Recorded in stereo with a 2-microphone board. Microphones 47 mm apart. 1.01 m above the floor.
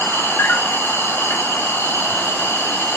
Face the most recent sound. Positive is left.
turn(degrees=55)  # may be behind; listen again after turning